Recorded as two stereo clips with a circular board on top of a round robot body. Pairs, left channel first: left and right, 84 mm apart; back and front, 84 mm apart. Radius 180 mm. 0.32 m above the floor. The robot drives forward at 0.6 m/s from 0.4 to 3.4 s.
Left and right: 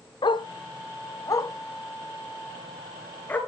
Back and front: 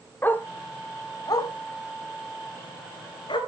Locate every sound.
0.2 s a dog barking: 115° left, 0.9 m; by 3.4 s 160° left, 2.5 m